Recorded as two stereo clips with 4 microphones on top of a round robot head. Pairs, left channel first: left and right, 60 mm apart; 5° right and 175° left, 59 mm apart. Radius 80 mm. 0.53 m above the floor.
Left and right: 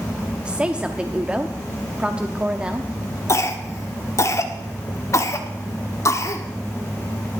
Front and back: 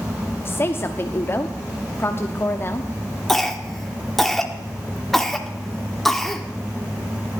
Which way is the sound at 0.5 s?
25° right.